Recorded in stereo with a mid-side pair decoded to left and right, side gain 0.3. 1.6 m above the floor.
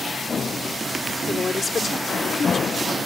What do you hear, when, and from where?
1.3 s a woman speaking: 50° left